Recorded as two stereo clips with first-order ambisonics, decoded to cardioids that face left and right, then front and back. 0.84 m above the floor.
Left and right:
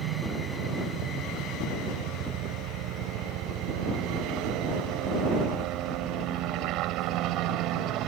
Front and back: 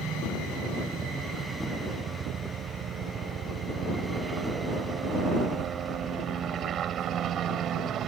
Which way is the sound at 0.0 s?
115° right.